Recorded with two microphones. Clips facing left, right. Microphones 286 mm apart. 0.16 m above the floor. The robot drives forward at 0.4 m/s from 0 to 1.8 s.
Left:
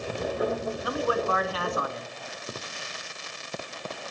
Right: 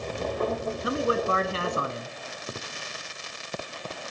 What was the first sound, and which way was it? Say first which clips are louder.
A man speaking: right 2 dB; 25° right (ahead or behind).